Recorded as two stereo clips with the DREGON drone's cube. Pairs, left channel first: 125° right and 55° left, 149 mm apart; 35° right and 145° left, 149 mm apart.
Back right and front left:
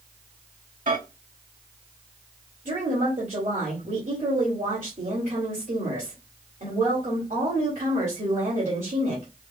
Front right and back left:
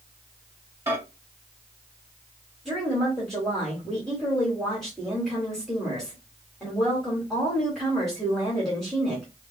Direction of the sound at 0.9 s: 75° left.